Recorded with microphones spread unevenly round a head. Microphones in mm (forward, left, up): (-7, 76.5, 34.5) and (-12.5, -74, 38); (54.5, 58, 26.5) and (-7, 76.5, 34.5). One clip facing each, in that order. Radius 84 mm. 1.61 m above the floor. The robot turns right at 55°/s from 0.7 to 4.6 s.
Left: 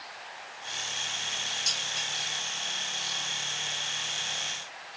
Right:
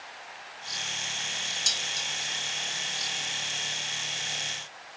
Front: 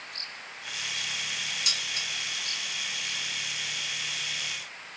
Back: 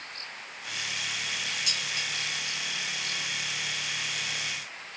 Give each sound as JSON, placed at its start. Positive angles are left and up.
{"t": 1.7, "sound": "dishes clattering", "azimuth_deg": -35, "distance_m": 1.4}